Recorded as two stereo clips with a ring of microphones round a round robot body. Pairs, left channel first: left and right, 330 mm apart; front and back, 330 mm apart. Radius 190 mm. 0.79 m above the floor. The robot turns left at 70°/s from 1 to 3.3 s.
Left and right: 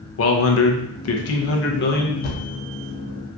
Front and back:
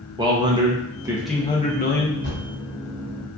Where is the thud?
70° left, 0.5 m; by 2.5 s 55° left, 0.5 m.